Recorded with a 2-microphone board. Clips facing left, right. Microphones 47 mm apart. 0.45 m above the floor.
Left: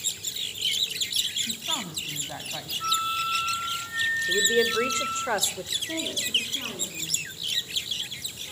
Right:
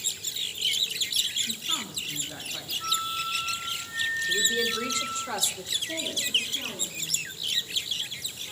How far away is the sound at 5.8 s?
About 6.5 m.